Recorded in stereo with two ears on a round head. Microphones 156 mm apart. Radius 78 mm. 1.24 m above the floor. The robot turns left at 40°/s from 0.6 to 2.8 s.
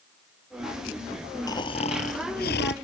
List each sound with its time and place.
1.5 s snoring: 160° left; by 2.7 s 105° left